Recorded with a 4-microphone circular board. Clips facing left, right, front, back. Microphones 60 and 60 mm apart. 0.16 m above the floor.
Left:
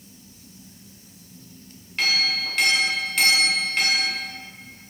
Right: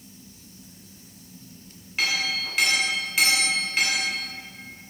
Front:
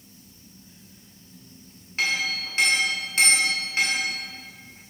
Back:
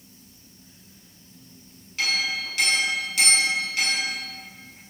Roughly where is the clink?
Ahead.